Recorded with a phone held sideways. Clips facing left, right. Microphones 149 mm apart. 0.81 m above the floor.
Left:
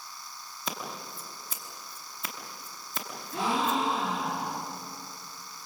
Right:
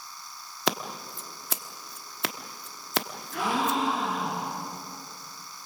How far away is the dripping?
I don't hear dripping.